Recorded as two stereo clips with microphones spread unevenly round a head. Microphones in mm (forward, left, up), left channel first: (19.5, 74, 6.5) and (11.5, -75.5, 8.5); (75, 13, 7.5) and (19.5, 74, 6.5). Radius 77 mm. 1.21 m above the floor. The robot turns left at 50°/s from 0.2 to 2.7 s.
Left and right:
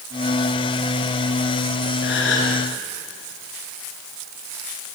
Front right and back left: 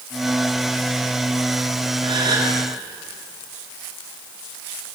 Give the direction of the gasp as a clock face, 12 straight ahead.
8 o'clock.